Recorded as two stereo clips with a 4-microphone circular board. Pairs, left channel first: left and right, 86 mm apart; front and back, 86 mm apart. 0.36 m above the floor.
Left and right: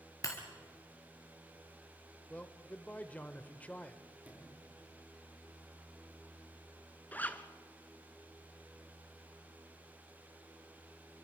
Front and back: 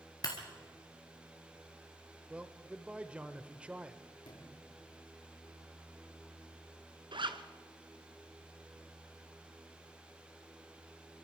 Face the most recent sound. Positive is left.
turn(degrees=160)